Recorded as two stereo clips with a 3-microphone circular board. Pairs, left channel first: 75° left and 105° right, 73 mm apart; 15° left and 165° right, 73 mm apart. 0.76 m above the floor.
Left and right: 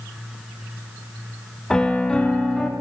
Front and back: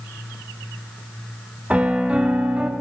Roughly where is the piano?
Behind left.